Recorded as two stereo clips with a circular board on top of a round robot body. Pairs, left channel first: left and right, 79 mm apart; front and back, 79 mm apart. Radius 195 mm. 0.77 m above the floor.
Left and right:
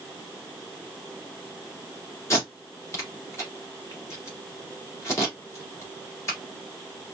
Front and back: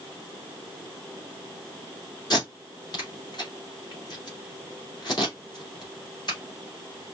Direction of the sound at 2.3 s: 35° left.